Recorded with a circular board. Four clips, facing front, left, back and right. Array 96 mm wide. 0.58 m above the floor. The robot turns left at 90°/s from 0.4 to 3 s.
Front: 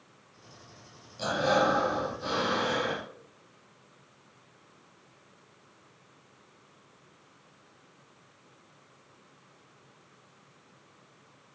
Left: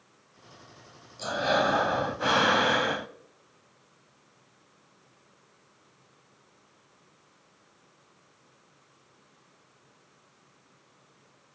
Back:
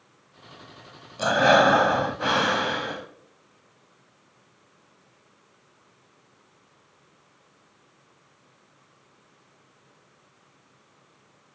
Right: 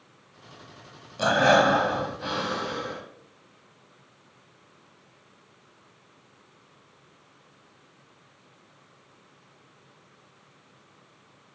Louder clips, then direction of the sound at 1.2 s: Right 7 dB, back 8 dB; 120° right.